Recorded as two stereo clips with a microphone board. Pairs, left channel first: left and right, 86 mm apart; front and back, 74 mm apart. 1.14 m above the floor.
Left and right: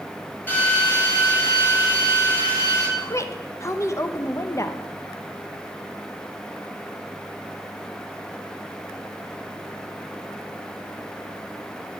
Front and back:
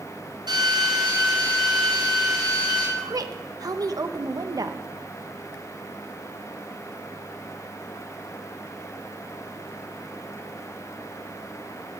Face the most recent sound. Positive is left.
turn(degrees=145)